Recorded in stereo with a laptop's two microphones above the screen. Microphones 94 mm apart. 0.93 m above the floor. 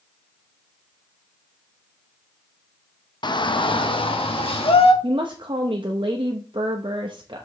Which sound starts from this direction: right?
A woman speaking, at 5.0 s.